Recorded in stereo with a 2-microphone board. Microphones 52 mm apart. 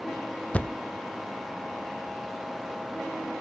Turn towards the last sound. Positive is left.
turn(degrees=25)  # may be behind; listen again after turning